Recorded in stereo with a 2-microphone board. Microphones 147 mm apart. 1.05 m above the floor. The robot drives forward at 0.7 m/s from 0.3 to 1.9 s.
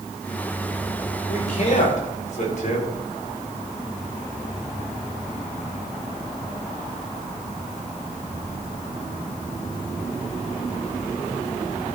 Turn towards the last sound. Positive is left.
turn(degrees=50)  # may be behind; listen again after turning